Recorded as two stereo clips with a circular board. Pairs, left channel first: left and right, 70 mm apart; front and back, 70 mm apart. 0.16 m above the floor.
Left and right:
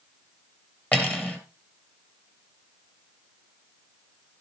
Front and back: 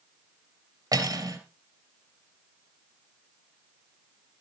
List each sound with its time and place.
0.9 s cutlery clinking: 155° left, 2.5 m